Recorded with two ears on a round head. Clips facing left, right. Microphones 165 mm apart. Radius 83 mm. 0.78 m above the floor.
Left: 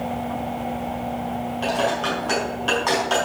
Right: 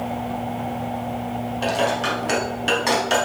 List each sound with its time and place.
1.6 s dishes clattering: 25° right (ahead or behind), 4.5 m